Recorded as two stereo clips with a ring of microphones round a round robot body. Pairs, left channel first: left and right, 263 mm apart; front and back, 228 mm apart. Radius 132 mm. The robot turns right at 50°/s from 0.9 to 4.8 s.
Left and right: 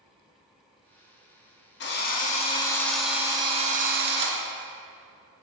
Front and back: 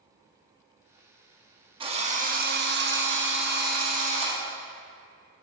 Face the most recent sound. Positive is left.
turn(degrees=-90)